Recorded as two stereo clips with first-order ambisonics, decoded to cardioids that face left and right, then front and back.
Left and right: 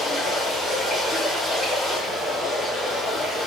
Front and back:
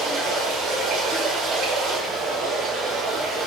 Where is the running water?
160° left, 1.2 m.